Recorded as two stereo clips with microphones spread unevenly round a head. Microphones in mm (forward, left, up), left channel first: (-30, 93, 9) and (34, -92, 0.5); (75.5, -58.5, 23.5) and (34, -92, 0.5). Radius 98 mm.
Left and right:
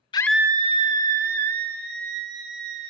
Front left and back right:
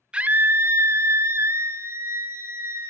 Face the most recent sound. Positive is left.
turn(degrees=-105)